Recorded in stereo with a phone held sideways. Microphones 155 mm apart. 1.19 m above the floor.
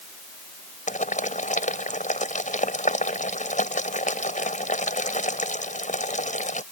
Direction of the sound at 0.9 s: 55° left (ahead or behind).